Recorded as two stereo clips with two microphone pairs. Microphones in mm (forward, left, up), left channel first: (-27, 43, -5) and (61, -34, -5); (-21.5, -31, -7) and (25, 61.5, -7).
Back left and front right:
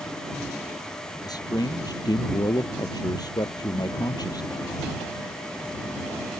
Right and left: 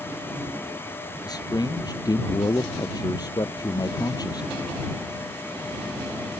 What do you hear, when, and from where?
1.2 s a man speaking: 165° right